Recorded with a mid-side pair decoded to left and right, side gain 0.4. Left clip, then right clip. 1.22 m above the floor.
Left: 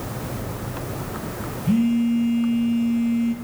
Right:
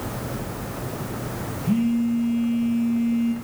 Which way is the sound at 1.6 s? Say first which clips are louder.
Left 2 dB; 20° left.